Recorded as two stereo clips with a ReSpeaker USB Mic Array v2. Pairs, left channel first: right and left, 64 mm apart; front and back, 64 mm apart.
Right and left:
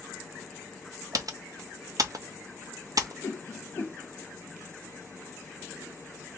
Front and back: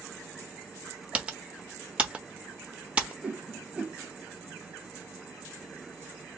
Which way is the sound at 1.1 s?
110° left.